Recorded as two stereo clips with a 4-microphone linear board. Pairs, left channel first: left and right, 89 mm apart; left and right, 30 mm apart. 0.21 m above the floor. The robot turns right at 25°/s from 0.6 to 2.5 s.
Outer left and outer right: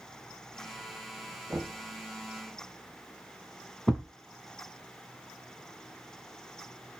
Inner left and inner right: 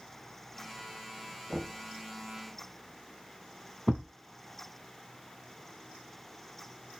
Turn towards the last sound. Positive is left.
turn(degrees=5)  # may be behind; listen again after turning